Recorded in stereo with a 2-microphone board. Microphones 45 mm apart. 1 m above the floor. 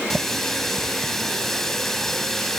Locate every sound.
0.1 s a running tap: 5° left (ahead or behind)